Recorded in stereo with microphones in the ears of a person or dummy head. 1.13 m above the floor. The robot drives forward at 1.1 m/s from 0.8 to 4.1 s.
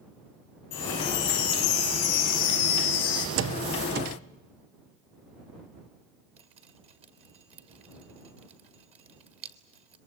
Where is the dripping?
35° right (ahead or behind), 1.9 m.